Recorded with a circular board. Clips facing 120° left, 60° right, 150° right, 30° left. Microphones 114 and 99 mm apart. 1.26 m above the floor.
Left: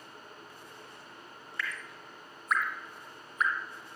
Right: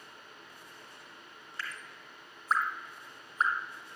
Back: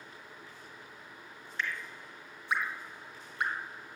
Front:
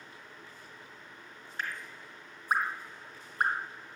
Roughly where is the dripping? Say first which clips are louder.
Left 4 dB, back 1 dB; ahead.